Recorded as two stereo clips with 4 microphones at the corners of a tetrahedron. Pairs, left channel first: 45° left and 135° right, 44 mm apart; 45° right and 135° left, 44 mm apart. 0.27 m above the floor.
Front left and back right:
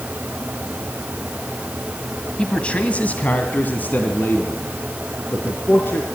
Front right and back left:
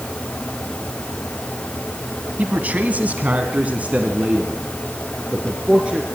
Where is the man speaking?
100° left, 1.5 m; by 6.2 s 75° left, 3.5 m.